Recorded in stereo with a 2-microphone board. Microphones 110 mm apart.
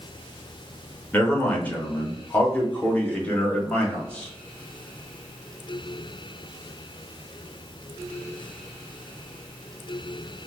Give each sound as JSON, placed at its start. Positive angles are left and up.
{"t": 1.1, "sound": "a man speaking", "side_deg": 15, "distance_m": 1.0}